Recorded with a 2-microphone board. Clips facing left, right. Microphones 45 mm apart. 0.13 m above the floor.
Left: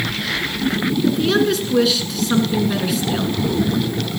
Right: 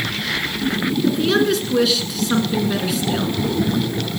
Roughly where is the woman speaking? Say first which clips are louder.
Even; centre.